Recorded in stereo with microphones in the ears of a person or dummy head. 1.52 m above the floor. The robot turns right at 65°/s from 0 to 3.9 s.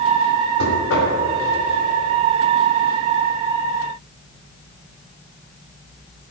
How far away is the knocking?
About 3.5 m.